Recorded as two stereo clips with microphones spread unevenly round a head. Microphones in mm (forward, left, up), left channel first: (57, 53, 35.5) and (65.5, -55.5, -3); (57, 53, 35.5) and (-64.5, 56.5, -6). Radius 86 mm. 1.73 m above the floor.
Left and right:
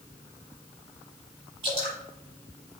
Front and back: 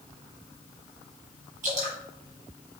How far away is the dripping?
About 2.5 m.